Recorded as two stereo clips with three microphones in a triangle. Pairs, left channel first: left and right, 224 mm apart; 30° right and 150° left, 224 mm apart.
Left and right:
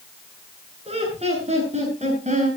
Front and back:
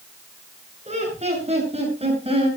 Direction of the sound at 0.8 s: 150° right.